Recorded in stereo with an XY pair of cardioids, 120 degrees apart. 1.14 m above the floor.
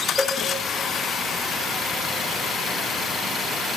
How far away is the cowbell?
About 0.8 m.